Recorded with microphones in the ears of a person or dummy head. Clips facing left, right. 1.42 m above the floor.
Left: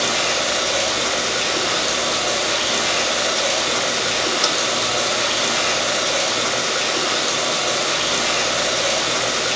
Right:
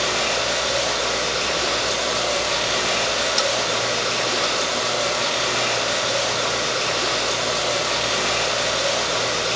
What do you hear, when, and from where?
0.0 s running water: 50° left (ahead or behind), 4 m